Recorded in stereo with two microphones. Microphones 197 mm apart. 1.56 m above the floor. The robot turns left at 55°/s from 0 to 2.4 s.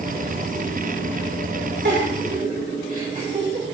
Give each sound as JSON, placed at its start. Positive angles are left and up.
{"t": 1.9, "sound": "a giggle", "side_deg": -70, "distance_m": 3.5}